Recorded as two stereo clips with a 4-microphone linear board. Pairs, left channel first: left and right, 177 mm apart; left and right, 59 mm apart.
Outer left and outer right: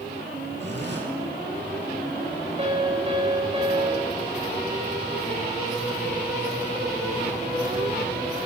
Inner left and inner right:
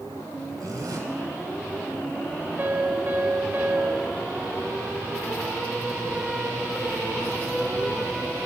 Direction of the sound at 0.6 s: 80° right.